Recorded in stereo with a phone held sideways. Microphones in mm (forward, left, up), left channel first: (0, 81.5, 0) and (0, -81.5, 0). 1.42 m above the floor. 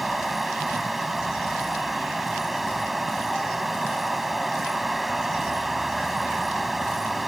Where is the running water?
Centre (ahead or behind).